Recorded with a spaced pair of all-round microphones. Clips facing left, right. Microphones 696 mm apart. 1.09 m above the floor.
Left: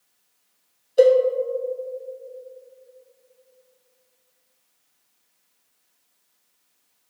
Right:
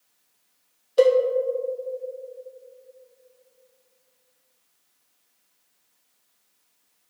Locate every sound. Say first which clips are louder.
1.0 s a cowbell: left 3 dB; 35° right (ahead or behind), 0.8 m